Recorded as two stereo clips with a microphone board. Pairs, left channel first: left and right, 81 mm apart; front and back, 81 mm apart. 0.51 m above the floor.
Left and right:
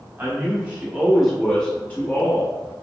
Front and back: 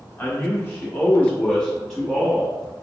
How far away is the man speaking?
About 1.0 m.